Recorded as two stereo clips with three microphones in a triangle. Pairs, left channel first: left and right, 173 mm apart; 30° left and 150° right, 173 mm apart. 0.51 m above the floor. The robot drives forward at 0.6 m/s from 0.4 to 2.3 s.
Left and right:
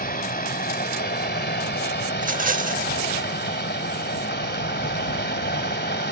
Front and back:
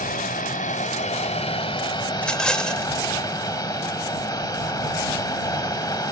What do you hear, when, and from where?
0.0 s running water: 60° left, 2.0 m; by 6.1 s 100° left, 1.8 m
2.1 s a rattle: 50° right, 0.8 m; by 2.9 s 55° right, 0.8 m